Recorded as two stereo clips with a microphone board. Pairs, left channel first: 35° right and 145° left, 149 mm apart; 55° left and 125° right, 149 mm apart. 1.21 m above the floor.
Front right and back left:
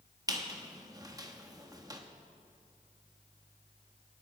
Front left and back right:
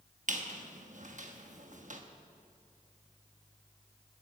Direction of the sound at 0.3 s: 150° right.